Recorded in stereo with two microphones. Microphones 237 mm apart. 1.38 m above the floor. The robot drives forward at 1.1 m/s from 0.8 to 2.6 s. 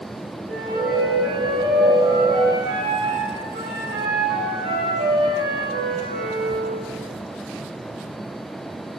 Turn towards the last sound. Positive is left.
turn(degrees=-45)  # may be behind; listen again after turning